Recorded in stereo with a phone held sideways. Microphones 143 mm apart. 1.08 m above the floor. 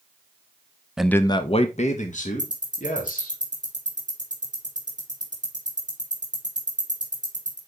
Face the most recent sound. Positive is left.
turn(degrees=-30)  # may be behind; listen again after turning